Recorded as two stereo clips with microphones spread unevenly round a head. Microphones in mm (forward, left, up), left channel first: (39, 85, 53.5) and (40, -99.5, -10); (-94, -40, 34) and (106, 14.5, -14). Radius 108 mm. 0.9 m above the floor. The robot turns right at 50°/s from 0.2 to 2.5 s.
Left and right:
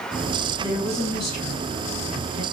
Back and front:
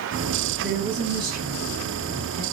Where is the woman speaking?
15° left, 1.9 m; by 2.4 s 105° left, 1.9 m.